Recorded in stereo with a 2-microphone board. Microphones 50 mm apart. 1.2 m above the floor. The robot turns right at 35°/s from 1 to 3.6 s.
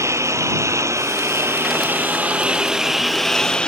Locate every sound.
0.0 s a lawn mower: 75° right (ahead or behind); by 3.7 s 20° left (ahead or behind)